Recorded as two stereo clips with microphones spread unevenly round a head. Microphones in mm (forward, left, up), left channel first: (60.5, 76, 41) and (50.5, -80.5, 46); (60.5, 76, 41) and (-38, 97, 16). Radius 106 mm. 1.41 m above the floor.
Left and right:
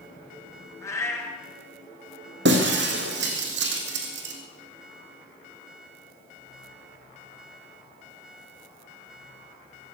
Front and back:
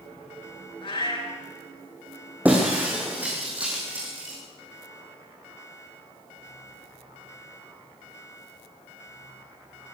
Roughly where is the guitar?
No guitar in this recording.